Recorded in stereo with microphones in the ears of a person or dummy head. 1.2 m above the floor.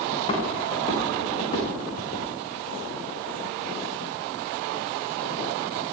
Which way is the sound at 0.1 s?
30° left (ahead or behind).